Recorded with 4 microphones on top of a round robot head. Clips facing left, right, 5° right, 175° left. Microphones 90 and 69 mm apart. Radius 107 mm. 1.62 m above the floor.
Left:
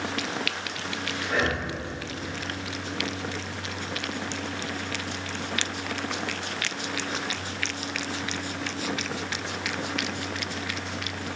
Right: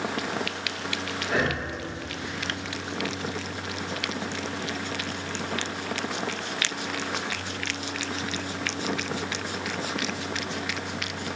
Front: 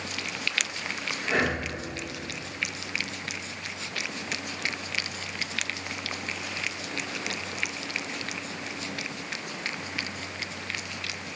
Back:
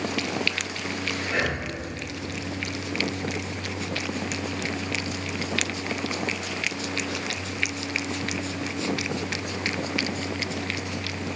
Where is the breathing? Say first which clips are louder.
Even, front 2 dB; 60° right, 1.2 m.